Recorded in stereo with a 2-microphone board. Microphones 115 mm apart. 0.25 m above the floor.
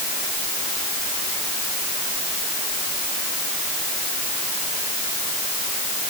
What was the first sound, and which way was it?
Only background noise.